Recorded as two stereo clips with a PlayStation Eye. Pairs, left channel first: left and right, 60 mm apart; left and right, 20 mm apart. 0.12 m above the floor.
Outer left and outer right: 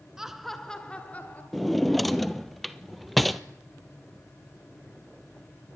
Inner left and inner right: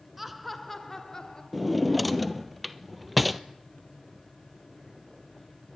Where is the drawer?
Centre (ahead or behind), 0.8 m.